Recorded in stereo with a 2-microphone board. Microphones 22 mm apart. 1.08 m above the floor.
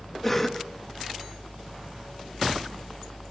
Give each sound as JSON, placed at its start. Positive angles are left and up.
{"t": 0.2, "sound": "a cough", "side_deg": 10, "distance_m": 2.0}